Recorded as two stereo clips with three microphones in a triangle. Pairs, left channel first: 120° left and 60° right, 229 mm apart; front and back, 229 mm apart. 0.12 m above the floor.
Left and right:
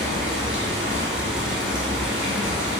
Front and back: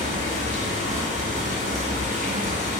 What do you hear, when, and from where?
0.0 s running water: 145° right, 0.9 m